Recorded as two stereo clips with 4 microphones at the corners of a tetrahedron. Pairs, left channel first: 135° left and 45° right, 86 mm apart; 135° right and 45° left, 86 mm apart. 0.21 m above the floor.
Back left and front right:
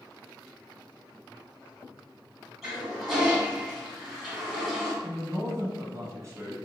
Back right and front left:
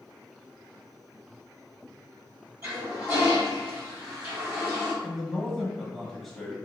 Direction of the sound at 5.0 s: 45° right.